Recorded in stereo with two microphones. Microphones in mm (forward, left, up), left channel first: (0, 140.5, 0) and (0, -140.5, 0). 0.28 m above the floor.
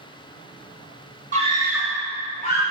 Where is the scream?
25° right (ahead or behind), 1.3 m; by 2.6 s 35° left (ahead or behind), 1.6 m.